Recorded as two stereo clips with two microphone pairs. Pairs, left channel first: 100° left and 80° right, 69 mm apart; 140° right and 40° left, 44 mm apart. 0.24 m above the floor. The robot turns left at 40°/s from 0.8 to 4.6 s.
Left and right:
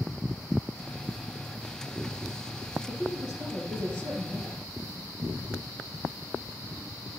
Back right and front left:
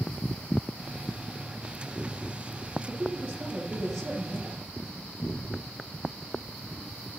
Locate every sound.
2.9 s a woman speaking: 5° left, 6.5 m; by 4.6 s 65° right, 6.5 m
5.2 s a cupboard door: 90° right, 4.5 m